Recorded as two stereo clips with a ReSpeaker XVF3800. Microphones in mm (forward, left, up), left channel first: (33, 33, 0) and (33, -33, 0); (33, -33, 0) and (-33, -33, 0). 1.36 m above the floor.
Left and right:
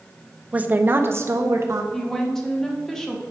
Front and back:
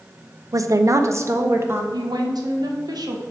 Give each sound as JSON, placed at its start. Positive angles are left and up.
{"t": 0.5, "sound": "a woman speaking", "azimuth_deg": -155, "distance_m": 0.5}
{"t": 1.9, "sound": "a woman speaking", "azimuth_deg": 175, "distance_m": 1.1}